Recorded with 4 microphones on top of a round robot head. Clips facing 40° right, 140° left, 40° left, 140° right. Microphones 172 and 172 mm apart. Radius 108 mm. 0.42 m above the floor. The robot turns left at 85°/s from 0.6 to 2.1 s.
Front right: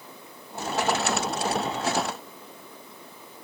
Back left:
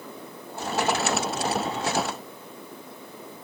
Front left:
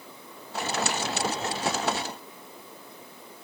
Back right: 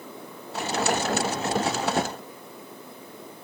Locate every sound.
Only background noise.